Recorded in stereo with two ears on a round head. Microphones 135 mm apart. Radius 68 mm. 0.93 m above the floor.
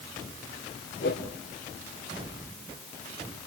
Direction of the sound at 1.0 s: 65° left (ahead or behind).